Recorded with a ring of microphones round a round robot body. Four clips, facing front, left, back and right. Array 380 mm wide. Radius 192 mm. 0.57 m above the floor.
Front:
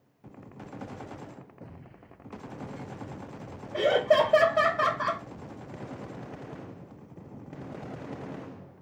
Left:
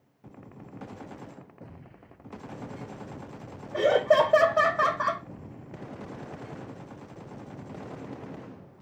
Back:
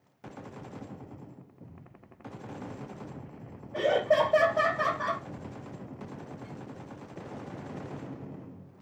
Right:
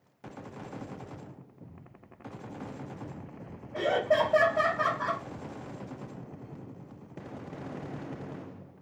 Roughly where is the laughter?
Left.